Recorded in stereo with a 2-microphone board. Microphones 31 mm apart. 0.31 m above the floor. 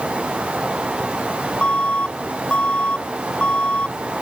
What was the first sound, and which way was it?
An alarm, 40° left (ahead or behind).